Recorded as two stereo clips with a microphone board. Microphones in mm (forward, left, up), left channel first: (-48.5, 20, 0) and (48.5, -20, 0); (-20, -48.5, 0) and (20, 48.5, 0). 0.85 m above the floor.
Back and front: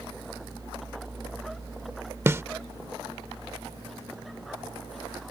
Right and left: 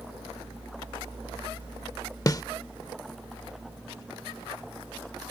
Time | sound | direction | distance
2.3 | a snare drum | 75° right | ?